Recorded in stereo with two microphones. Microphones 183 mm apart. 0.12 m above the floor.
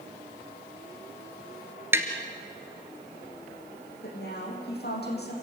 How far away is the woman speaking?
About 6 m.